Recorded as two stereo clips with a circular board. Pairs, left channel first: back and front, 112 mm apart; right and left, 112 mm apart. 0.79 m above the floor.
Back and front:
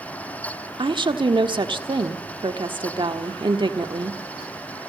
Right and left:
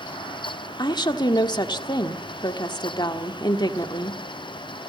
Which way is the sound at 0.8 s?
40° right.